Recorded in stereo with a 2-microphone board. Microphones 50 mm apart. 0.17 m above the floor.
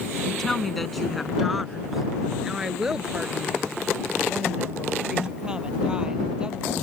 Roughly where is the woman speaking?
Centre.